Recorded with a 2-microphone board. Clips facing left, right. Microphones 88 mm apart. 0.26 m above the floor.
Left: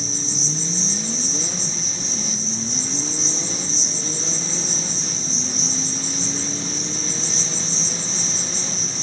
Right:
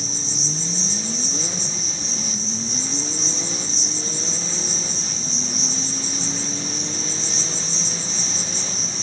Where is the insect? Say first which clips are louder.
Left 2 dB; 55° right (ahead or behind), 2.5 m.